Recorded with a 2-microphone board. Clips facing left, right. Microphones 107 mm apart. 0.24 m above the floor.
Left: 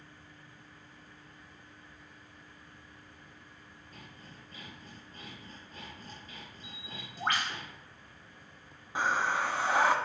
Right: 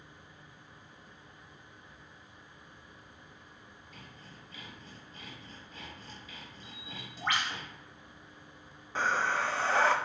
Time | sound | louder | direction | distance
3.9 | sawing | left 1 dB | 45° left (ahead or behind) | 4 m
6.6 | a bird | even | 45° left (ahead or behind) | 2 m
8.9 | breathing | even | 10° left (ahead or behind) | 0.9 m